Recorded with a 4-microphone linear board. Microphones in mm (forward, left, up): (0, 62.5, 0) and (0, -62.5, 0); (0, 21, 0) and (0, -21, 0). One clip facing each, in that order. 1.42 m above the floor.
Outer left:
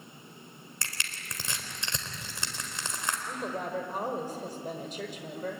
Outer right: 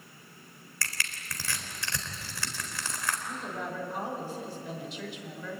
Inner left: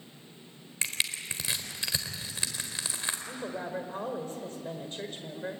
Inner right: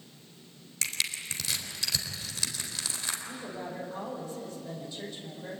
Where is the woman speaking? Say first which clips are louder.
Outer left 2 dB, inner left 2 dB; 45° left (ahead or behind), 5 m.